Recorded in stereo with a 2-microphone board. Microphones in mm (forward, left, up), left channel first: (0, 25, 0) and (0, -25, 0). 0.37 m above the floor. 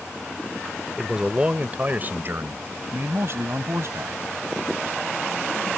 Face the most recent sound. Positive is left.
turn(degrees=-60)  # may be behind; listen again after turning